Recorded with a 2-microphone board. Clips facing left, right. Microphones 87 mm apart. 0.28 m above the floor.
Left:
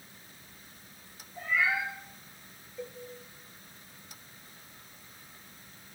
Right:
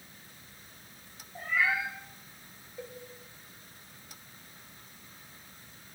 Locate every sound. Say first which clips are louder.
1.4 s a cat meowing: even; 50° right (ahead or behind), 3.5 m
2.8 s a cowbell: left 2 dB; 10° right (ahead or behind), 1.0 m